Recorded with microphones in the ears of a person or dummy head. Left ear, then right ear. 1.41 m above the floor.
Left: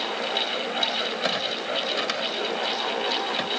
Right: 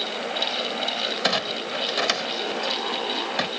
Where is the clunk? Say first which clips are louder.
Right 2 dB; 15° right (ahead or behind).